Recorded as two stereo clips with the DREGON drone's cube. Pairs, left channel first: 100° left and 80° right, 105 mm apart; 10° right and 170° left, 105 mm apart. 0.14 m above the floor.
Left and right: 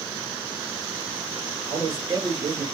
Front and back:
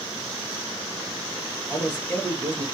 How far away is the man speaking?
About 1.9 m.